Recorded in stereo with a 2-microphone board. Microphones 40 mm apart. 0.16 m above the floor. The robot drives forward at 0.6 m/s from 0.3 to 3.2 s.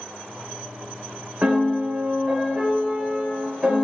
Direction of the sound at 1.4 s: 35° right (ahead or behind).